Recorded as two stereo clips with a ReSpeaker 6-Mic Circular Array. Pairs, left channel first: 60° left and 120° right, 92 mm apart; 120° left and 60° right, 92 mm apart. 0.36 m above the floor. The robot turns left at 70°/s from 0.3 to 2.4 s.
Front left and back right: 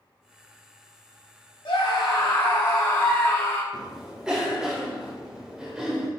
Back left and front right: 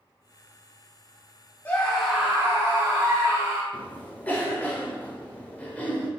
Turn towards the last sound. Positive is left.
turn(degrees=165)